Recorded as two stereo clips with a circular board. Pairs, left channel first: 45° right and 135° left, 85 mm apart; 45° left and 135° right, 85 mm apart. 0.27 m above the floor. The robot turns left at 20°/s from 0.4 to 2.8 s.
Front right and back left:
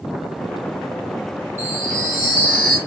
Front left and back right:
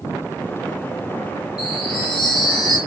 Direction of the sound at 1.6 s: 75° left.